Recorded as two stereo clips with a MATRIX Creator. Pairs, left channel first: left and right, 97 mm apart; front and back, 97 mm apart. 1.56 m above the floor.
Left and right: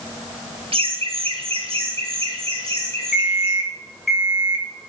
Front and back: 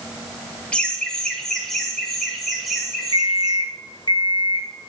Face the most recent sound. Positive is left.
turn(degrees=5)